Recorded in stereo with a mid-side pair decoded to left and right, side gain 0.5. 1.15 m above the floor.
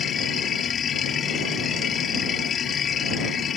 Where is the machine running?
50° left.